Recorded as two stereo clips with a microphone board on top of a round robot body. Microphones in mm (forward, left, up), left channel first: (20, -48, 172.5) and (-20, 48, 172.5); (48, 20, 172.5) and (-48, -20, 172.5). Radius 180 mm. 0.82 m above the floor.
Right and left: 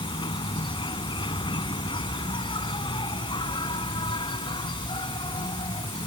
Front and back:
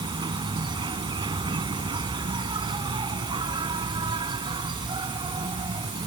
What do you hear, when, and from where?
0.0 s an insect: 110° right